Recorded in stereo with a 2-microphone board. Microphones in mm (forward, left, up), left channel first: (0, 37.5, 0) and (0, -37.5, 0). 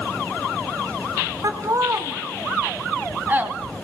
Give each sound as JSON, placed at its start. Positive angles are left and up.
{"t": 1.4, "sound": "laughter", "side_deg": -50, "distance_m": 2.5}